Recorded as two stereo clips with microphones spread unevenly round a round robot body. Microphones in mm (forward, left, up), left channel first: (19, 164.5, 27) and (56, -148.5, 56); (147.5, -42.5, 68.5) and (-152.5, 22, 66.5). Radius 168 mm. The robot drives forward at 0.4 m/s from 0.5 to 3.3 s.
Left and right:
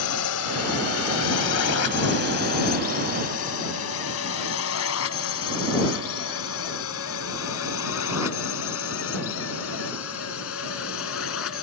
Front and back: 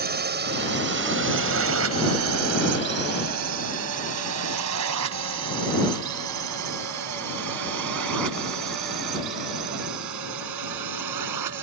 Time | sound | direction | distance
0.0 | a drone | 115° left | ?